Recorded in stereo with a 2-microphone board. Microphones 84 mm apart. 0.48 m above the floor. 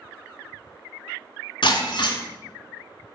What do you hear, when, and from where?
1.6 s breaking glass: 70° left (ahead or behind), 1.8 m